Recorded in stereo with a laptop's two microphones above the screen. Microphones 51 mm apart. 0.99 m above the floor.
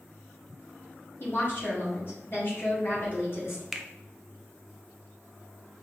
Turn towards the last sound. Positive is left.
turn(degrees=0)  # may be behind; listen again after turning